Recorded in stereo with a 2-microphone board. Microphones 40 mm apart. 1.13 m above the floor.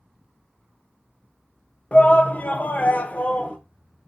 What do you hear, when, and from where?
1.9 s a shout: 30° left (ahead or behind), 1.0 m